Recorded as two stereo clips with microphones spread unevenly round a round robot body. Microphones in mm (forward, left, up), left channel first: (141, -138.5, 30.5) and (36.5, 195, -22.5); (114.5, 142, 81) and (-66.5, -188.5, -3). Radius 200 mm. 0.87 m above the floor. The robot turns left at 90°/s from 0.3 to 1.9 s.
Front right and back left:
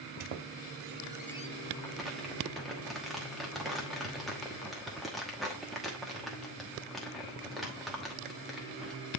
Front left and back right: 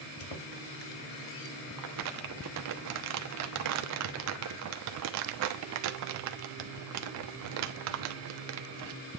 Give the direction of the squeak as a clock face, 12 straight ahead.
9 o'clock.